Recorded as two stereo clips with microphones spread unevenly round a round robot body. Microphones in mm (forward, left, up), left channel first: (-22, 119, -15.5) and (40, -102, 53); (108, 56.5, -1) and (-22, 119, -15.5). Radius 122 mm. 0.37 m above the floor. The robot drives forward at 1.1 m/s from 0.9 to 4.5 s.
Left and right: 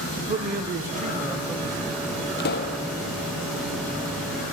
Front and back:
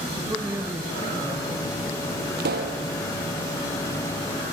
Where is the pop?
155° left, 2 m; by 2.8 s 160° left, 2.5 m.